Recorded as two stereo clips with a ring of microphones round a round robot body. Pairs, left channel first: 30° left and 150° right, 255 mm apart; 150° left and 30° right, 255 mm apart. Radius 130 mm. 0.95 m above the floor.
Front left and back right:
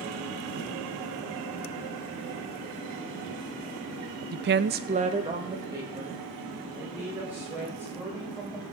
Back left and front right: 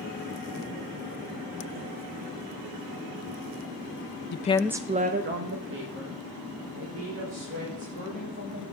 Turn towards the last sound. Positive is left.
turn(degrees=-65)